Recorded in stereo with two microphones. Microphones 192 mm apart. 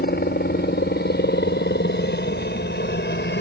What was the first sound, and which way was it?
A helicopter, 55° left (ahead or behind).